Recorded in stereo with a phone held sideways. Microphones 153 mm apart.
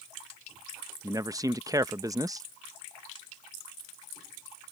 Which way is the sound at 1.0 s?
20° right (ahead or behind).